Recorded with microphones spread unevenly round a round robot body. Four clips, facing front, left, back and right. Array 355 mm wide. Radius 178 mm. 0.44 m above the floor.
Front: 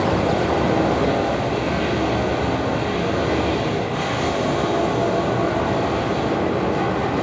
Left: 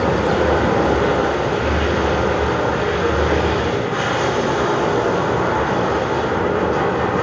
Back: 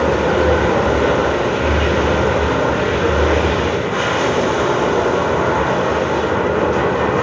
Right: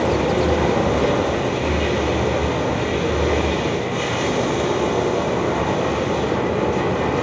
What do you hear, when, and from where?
0.0 s running water: 160° left, 1.3 m